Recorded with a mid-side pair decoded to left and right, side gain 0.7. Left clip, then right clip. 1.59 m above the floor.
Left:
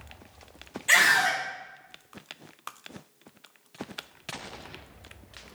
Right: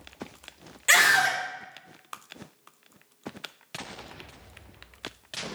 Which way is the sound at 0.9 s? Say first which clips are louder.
Right 1 dB; 40° right.